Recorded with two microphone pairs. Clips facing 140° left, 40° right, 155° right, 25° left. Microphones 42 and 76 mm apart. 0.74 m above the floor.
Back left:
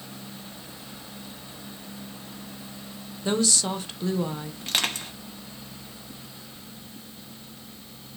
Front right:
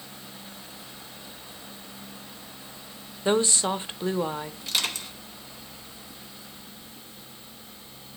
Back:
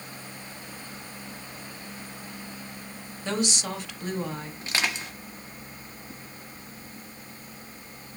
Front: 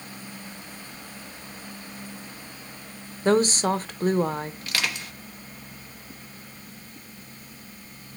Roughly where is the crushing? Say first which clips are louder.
Back left 4 dB, back 1 dB; behind left.